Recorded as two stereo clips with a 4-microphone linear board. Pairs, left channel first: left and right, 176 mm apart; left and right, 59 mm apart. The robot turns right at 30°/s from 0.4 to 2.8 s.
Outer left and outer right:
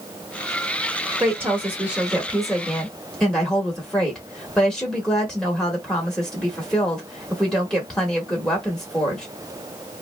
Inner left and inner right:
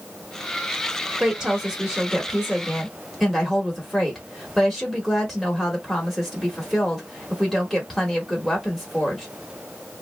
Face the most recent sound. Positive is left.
turn(degrees=5)  # may be behind; listen again after turning